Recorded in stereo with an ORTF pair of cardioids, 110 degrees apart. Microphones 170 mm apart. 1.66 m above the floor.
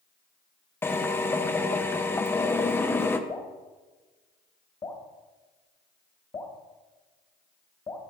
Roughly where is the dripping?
Ahead left.